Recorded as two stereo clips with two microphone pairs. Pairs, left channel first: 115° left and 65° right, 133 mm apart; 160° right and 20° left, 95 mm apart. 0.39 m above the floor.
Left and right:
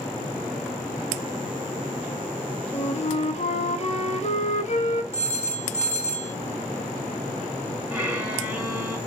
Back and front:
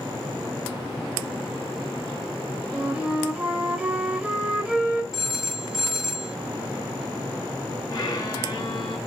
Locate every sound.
2.7 s a flute: 95° left, 0.8 m
5.1 s a phone ringing: 100° left, 1.3 m
7.9 s a violin: 140° right, 1.9 m